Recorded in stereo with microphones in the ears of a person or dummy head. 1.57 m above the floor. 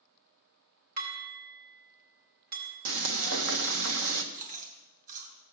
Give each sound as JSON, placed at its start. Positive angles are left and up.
{"t": 1.0, "sound": "dishes clattering", "side_deg": -55, "distance_m": 4.0}
{"t": 2.9, "sound": "frying", "side_deg": -70, "distance_m": 1.2}
{"t": 4.3, "sound": "chewing", "side_deg": -50, "distance_m": 3.0}